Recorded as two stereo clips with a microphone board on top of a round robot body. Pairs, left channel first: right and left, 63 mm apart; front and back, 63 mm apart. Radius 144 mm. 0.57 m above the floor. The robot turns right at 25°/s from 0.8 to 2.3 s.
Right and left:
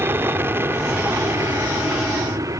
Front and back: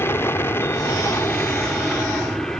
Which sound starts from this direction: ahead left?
An aircraft, at 0.0 s.